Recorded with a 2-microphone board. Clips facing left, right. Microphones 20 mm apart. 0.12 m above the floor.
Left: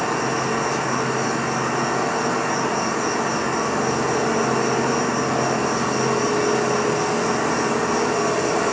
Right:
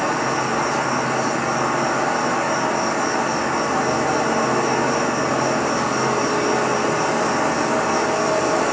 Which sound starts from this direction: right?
An insect, at 0.0 s.